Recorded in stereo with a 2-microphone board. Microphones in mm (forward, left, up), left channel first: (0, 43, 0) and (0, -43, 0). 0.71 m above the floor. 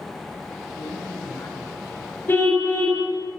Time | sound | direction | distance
0.8 | a man speaking | 50° left (ahead or behind) | 7.5 m
2.3 | a car horn | 25° left (ahead or behind) | 7.5 m